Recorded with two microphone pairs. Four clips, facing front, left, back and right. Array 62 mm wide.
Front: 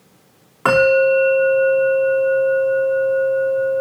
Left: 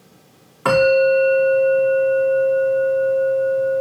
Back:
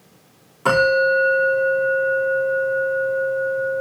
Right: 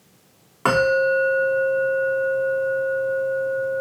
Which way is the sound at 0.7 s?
30° right.